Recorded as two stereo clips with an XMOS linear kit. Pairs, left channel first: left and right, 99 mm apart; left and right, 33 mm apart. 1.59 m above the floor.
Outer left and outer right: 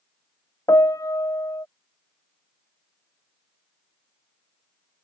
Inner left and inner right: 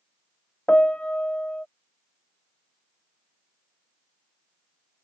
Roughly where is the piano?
Left.